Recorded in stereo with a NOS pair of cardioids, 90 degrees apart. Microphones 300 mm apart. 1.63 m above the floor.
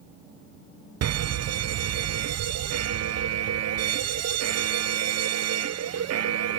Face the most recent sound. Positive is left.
turn(degrees=-55)